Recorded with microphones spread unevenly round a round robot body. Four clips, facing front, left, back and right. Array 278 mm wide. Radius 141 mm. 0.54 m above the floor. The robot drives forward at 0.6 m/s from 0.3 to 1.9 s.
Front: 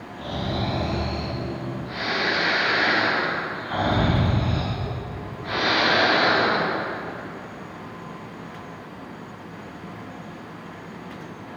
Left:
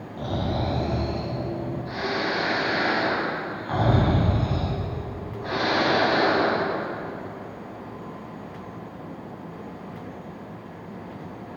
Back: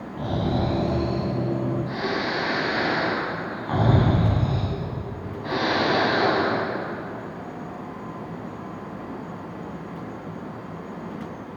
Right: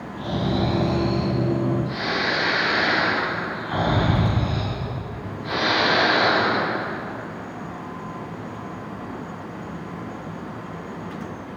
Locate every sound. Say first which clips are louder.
0.2 s snoring: right 3 dB, back 3 dB; 170° left, 4 m